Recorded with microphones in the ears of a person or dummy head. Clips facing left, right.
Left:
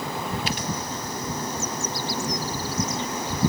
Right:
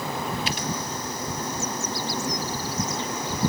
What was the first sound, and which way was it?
Only background noise.